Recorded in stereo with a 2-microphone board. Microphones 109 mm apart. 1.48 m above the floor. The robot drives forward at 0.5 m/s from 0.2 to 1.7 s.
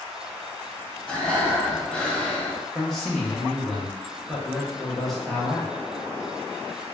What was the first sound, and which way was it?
Breathing, 10° left (ahead or behind).